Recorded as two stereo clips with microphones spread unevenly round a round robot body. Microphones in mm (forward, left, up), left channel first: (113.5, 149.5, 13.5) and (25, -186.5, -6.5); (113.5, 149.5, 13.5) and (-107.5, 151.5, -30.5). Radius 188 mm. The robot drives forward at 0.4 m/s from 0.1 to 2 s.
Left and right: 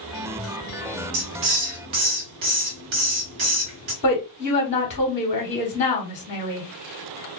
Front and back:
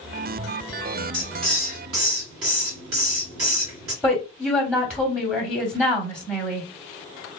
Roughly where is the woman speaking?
Behind left.